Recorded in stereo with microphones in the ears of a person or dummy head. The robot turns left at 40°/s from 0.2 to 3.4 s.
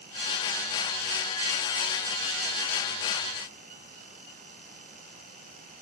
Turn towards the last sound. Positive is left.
No sound to turn to.